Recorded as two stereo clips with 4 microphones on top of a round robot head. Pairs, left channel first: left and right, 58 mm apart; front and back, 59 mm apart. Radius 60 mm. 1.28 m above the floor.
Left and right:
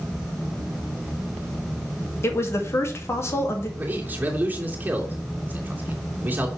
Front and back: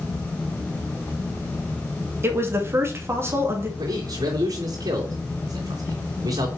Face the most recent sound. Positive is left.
turn(degrees=-150)